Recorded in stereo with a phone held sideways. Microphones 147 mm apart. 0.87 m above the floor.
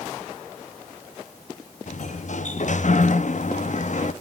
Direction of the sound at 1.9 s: 60° left (ahead or behind).